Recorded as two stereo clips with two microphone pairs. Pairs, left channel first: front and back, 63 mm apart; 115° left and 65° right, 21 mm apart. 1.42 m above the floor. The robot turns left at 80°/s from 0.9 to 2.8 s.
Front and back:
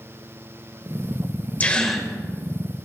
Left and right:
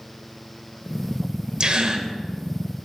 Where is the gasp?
55° right, 1.7 m; by 2.1 s 95° right, 1.7 m.